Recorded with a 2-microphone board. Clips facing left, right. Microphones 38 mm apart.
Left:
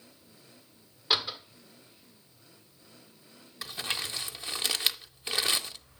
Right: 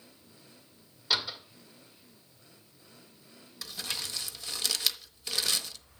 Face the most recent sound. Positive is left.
turn(degrees=25)  # may be behind; listen again after turning